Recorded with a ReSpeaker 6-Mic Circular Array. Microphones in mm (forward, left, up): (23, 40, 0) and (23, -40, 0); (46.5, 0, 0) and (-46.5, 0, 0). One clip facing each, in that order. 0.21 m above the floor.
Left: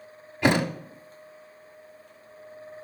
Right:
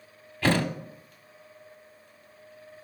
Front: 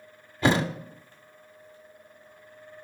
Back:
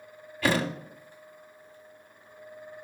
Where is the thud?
35° left, 0.7 m.